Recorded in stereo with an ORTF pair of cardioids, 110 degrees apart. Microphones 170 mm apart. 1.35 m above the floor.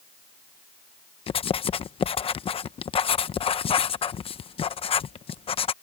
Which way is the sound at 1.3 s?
35° left.